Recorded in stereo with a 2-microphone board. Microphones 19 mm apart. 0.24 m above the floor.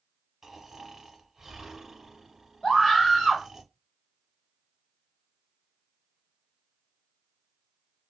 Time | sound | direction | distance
0.4 | snoring | 20° right (ahead or behind) | 0.9 m
2.6 | a scream | 30° left (ahead or behind) | 1.2 m